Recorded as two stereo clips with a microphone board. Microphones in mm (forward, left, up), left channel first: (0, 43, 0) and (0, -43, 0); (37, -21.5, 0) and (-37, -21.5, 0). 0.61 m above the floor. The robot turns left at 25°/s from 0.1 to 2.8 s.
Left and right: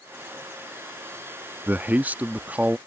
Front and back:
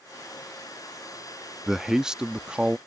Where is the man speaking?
105° right; by 2.8 s 130° right.